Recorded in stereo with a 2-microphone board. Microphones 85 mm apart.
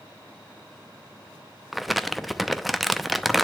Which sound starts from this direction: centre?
Crumpling, at 1.7 s.